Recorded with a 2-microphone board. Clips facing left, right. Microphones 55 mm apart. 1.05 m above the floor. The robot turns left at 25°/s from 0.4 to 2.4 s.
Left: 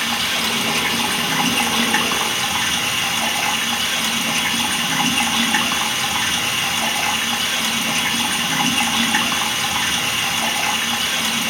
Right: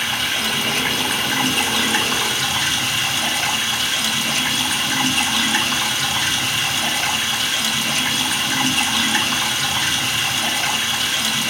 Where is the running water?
85° left, 2.5 m; by 11.5 s 35° left, 2.5 m.